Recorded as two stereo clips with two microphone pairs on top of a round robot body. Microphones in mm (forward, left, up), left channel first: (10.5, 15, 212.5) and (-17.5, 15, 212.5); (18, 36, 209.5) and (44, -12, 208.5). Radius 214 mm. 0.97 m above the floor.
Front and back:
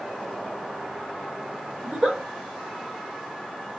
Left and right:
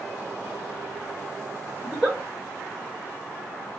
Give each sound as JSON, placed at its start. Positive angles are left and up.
{"t": 1.8, "sound": "a giggle", "azimuth_deg": -140, "distance_m": 1.6}